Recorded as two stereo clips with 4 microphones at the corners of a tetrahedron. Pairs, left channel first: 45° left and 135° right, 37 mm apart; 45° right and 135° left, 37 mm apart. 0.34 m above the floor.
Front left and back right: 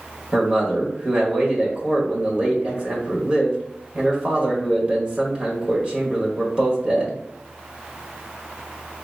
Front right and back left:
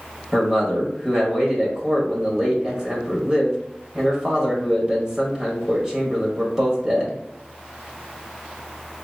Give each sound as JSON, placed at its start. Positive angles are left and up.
{"t": 0.3, "sound": "a man speaking", "azimuth_deg": -170, "distance_m": 1.5}